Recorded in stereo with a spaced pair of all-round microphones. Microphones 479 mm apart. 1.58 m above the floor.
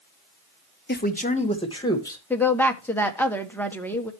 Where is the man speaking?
20° left (ahead or behind), 1.0 m; by 2.2 s 5° left (ahead or behind), 1.7 m.